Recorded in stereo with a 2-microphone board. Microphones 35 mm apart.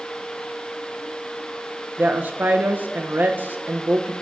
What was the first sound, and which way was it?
A woman speaking, 60° right (ahead or behind).